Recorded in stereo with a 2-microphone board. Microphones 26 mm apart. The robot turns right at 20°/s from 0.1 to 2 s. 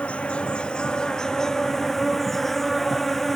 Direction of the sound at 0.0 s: 135° left.